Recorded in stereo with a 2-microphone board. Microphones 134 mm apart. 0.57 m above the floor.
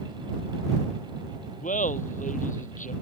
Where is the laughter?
70° left (ahead or behind).